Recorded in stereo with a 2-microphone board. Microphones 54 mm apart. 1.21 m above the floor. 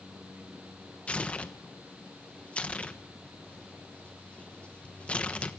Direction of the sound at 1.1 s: 20° left (ahead or behind).